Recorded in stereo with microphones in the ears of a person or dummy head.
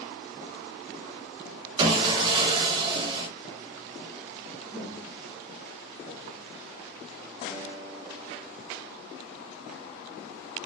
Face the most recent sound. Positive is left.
turn(degrees=-5)  # may be behind; listen again after turning